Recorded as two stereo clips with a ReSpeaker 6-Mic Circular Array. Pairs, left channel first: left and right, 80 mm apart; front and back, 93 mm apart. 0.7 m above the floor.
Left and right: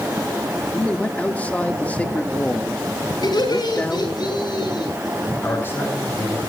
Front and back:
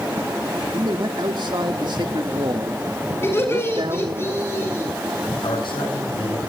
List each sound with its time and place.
0.7 s a man speaking: 155° left, 1.6 m
3.2 s laughter: 65° left, 6.5 m
5.4 s a man speaking: 30° left, 7.5 m